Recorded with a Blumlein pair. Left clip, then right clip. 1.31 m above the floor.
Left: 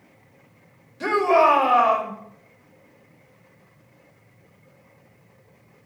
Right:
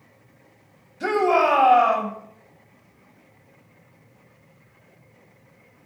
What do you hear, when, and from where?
1.0 s a shout: 70° left, 5 m